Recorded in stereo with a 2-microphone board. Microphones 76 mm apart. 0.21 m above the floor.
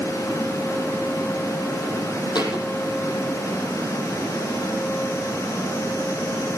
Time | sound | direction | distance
2.4 | a thud | 70° left (ahead or behind) | 3.5 m